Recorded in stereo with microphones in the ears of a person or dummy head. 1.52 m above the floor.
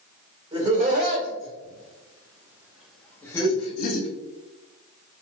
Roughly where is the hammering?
I don't hear hammering.